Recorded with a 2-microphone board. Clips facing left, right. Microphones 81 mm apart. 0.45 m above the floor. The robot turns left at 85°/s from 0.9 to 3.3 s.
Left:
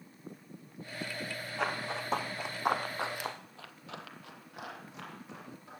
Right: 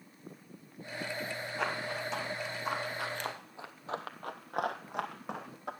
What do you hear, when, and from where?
1.6 s running footsteps: 5° right (ahead or behind), 1.3 m; by 5.7 s 65° right (ahead or behind), 1.3 m